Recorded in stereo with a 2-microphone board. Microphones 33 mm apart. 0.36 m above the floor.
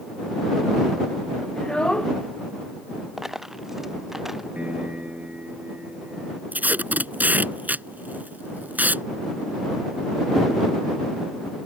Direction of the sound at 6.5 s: 55° right (ahead or behind).